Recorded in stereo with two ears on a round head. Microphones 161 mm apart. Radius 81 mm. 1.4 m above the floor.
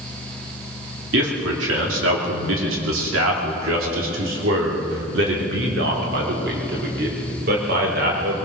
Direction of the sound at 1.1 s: 75° right (ahead or behind).